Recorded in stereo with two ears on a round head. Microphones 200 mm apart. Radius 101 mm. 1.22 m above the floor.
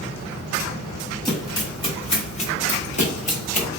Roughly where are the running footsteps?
Centre.